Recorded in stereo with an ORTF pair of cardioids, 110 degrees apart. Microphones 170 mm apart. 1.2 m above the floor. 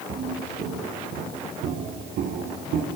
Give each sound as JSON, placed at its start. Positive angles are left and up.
{"t": 0.1, "sound": "footsteps", "azimuth_deg": -60, "distance_m": 7.5}